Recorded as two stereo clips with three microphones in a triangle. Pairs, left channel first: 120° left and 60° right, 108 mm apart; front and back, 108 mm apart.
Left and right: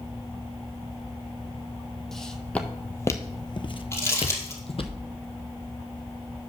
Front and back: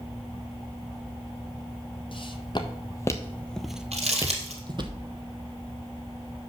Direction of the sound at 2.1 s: 35° left.